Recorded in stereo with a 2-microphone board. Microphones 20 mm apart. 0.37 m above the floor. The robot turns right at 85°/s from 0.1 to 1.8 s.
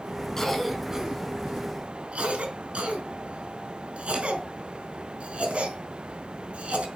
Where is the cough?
25° left (ahead or behind), 4.5 m; by 6.9 s 75° right (ahead or behind), 4.5 m.